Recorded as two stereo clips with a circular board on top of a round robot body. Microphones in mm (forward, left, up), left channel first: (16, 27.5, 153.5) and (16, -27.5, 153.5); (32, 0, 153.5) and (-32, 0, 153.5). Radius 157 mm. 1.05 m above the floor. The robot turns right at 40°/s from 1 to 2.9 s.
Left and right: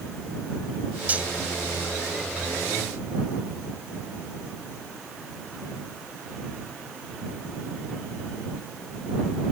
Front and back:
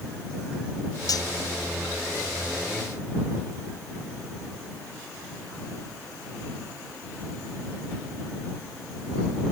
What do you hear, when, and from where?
1.1 s cutlery clinking: 25° right; by 1.3 s 20° right